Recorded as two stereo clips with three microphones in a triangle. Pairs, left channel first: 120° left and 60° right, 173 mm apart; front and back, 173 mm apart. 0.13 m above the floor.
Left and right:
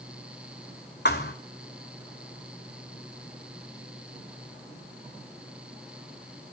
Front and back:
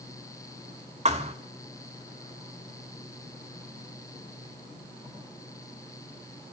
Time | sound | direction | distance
1.1 | a thud | 130° left | 1.5 m